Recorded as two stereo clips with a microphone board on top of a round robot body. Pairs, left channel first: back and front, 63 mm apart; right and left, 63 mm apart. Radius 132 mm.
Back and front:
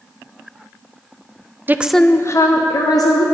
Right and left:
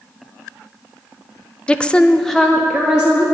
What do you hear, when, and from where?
1.7 s a woman speaking: 30° right, 0.7 m; by 3.2 s 175° left, 1.8 m